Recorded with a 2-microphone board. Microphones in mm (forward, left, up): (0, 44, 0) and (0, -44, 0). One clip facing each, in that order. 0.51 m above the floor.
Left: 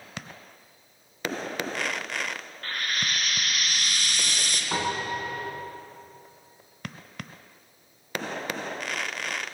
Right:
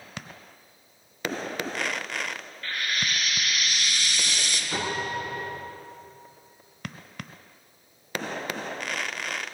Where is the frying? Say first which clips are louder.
Right 1 dB; 45° left (ahead or behind), 2.5 m.